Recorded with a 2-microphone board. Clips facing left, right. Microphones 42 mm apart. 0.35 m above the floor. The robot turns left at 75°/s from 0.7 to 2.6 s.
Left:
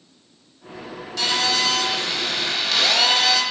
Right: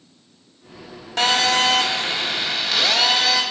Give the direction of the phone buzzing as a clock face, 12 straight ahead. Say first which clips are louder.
Right 4 dB; 2 o'clock.